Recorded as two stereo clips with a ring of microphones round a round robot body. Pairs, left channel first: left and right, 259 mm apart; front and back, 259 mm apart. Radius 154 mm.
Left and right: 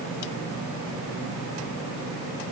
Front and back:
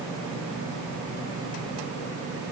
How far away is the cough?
I don't hear a cough.